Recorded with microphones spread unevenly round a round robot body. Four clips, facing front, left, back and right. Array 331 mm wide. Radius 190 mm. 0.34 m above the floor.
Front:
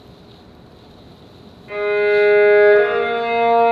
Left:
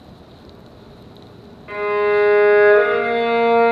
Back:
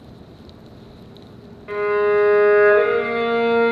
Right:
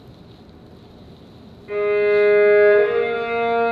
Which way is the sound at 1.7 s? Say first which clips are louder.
Right 1 dB, front 1 dB; 150° left.